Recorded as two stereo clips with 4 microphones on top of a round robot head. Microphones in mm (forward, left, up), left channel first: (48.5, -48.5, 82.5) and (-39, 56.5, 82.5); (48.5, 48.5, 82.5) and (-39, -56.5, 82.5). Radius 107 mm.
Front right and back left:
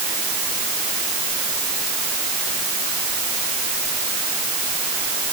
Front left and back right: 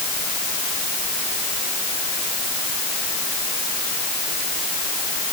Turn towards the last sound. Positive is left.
No sound to turn to.